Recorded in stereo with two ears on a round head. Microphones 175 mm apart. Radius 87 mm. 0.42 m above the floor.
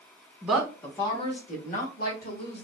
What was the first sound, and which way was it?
A woman speaking, 5° right (ahead or behind).